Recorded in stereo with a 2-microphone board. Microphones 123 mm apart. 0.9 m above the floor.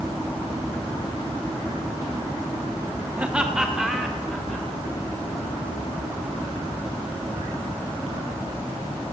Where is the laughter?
15° right (ahead or behind), 1.7 m; by 4.7 s centre (ahead or behind), 3.5 m.